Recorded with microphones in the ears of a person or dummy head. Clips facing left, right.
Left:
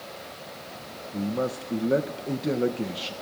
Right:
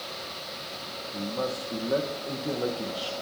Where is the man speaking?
25° left (ahead or behind), 0.6 m.